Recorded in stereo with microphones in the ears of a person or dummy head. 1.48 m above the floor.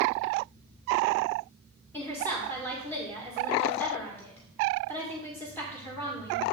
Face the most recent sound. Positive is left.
turn(degrees=10)  # may be behind; listen again after turning